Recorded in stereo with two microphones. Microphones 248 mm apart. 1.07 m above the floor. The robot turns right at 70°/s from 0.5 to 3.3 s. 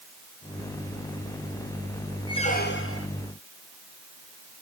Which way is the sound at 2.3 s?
15° left.